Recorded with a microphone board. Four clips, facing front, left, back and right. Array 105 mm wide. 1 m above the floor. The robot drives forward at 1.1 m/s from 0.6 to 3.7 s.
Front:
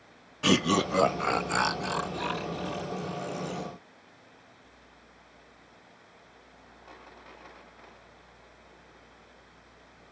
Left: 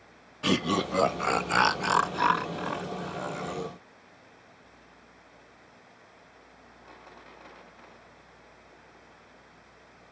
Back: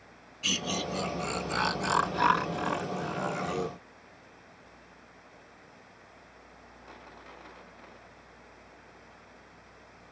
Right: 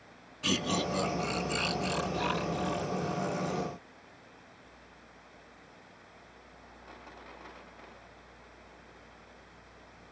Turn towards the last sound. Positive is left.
turn(degrees=165)